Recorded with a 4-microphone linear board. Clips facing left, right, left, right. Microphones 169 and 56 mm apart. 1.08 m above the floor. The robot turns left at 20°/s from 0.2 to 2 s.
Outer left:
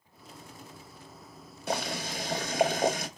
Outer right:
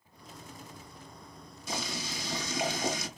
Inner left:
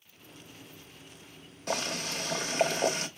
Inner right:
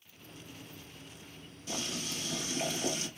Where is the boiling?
60° left (ahead or behind), 1.0 m; by 3.1 s 55° left (ahead or behind), 1.0 m.